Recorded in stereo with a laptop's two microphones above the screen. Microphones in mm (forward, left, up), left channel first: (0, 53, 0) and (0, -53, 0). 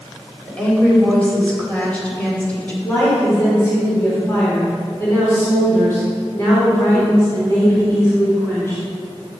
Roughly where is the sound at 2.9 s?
Left.